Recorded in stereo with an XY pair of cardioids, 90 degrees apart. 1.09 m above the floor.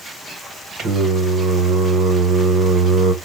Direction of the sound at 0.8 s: 65° right.